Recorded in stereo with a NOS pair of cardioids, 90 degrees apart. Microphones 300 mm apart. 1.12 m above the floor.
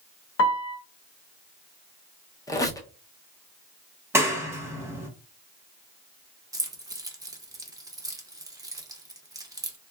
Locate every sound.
0.4 s a piano: 50° left, 0.7 m
2.5 s a squeak: 10° left, 0.6 m
4.1 s a clap: 10° right, 0.9 m
6.5 s keys jangling: 10° right, 0.7 m